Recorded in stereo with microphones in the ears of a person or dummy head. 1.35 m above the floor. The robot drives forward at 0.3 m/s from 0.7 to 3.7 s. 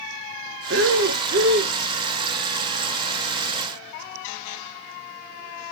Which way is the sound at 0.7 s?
55° right (ahead or behind).